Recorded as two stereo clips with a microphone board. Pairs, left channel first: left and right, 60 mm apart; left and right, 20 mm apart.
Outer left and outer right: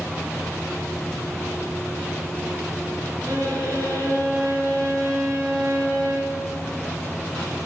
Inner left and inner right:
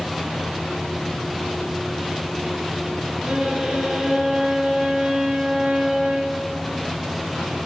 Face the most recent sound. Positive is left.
turn(degrees=-70)  # may be behind; listen again after turning